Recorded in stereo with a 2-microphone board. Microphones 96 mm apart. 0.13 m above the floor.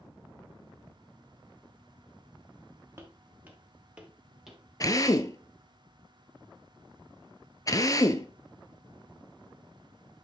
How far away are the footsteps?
About 2.5 m.